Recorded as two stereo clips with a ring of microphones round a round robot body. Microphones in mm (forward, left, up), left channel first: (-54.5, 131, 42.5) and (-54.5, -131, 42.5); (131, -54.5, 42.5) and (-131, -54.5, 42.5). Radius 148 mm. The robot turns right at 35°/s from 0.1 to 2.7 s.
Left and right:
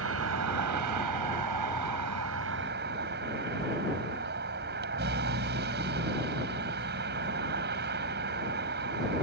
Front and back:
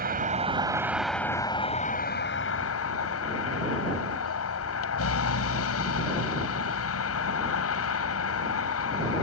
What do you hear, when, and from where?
0.0 s a vehicle: 125° right; by 9.2 s 35° right